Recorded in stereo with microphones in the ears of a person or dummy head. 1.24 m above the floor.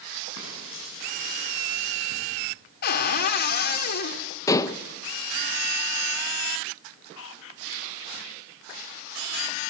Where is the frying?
70° left (ahead or behind), 8 m.